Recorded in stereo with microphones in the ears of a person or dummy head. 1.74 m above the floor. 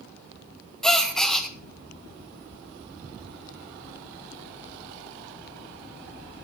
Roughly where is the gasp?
Centre.